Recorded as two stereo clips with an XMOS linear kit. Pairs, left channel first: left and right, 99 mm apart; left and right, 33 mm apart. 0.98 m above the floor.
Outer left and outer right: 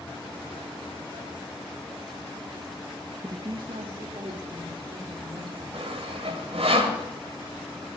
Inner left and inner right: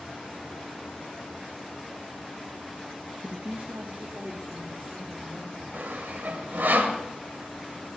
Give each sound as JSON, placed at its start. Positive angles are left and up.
{"t": 3.2, "sound": "a woman speaking", "side_deg": -35, "distance_m": 0.8}
{"t": 5.7, "sound": "sawing", "side_deg": -80, "distance_m": 2.0}